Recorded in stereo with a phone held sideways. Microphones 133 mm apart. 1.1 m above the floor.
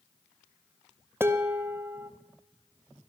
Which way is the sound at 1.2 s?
15° right (ahead or behind).